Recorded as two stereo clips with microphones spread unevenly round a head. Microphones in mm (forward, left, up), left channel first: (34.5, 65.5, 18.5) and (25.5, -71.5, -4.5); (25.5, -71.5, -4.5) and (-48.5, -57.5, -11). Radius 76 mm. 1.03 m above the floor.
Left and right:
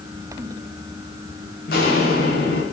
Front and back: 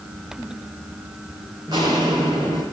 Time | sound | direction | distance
1.7 | footsteps | 105° left | 4.5 m